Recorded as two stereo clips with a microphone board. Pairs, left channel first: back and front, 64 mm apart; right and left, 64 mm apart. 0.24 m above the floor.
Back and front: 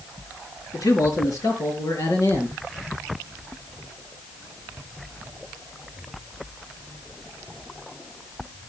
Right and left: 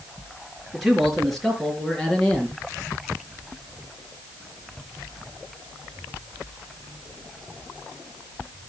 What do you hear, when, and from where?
0.7 s a man speaking: 175° left, 4 m; by 2.6 s 165° right, 3.5 m